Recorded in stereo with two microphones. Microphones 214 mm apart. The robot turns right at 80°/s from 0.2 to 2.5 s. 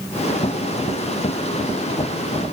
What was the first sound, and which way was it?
Only background noise.